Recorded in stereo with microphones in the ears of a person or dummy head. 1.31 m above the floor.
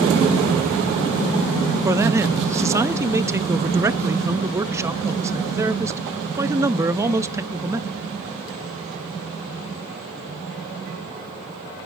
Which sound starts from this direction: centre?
A man speaking, at 1.9 s.